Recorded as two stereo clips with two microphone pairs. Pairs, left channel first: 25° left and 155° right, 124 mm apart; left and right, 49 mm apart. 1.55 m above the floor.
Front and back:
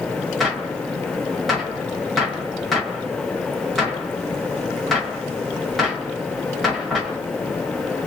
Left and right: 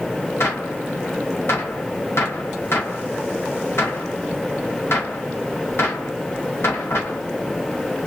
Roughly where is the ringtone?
I don't hear a ringtone.